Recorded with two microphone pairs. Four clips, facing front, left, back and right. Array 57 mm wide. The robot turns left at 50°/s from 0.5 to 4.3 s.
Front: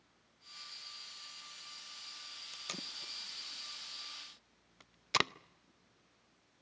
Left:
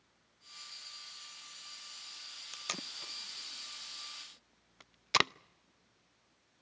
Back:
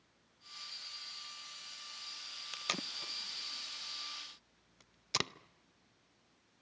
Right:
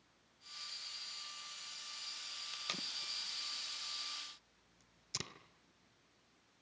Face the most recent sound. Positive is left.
turn(degrees=70)